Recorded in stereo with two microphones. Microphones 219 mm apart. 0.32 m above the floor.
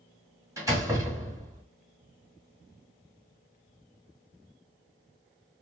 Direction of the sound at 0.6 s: 15° right (ahead or behind).